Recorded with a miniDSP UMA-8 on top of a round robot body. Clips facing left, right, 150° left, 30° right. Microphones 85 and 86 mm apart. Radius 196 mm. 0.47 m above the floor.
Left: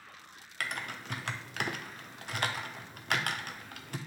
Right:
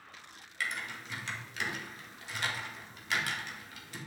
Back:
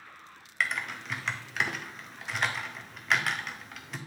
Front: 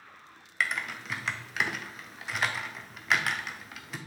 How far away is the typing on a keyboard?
About 0.7 m.